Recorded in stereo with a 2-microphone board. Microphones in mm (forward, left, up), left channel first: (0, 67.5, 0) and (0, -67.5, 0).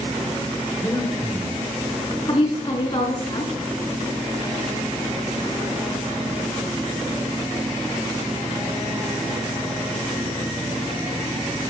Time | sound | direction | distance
0.8 | breathing | 15° left (ahead or behind) | 2.5 m
2.3 | a woman speaking | 40° left (ahead or behind) | 5 m